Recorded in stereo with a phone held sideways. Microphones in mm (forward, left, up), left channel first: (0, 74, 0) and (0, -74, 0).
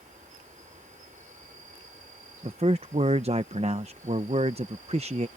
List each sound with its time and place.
0.0 s an insect: 60° right (ahead or behind)
2.4 s a man speaking: 45° right (ahead or behind)